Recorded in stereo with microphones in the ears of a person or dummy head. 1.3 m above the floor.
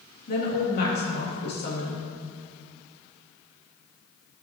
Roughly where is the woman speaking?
Left.